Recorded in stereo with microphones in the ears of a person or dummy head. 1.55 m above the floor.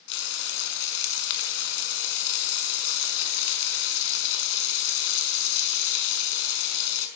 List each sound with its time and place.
0.1 s frying: 65° left (ahead or behind), 5 m